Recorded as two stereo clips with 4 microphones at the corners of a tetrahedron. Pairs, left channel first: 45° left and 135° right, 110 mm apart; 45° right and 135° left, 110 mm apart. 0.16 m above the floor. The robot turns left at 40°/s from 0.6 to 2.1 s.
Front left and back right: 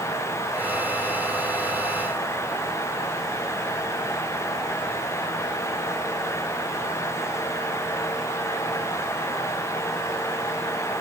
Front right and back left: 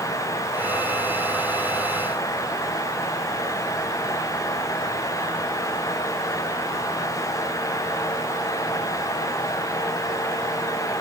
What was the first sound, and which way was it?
Only background noise.